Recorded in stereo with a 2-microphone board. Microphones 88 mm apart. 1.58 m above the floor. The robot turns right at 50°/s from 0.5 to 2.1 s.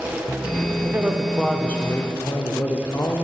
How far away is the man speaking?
About 0.6 m.